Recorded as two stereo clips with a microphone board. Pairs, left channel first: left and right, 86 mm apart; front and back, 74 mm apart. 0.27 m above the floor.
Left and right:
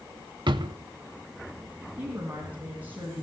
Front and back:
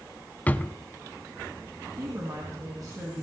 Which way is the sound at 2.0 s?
155° right.